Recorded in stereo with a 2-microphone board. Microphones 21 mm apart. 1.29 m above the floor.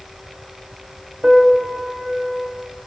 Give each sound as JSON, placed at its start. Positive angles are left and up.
{"t": 1.2, "sound": "a piano", "side_deg": -45, "distance_m": 0.9}